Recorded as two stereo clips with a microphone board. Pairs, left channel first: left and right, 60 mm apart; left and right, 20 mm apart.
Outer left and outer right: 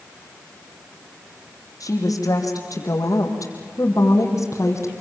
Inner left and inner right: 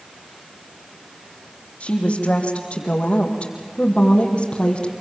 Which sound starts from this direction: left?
A woman speaking, at 1.8 s.